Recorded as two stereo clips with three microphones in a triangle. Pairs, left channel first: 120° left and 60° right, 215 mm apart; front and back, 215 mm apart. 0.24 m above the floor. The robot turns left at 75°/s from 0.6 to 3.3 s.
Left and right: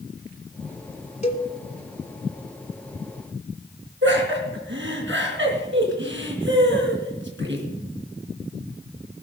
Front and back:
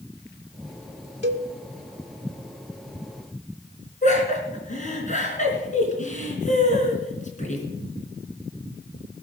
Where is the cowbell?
170° left, 1.5 m; by 1.5 s 150° left, 1.5 m.